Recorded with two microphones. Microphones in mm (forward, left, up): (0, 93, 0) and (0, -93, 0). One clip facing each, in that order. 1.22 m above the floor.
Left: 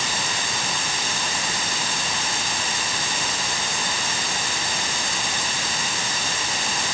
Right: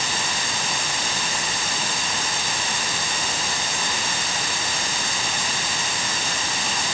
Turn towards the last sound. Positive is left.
No sound to turn to.